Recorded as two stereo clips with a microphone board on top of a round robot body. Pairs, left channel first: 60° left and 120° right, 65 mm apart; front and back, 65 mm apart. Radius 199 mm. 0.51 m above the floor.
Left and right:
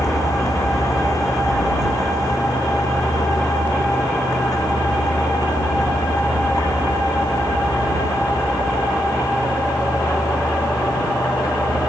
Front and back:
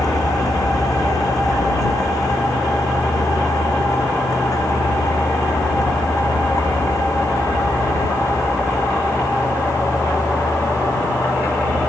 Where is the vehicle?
25° left; by 11.9 s 40° left.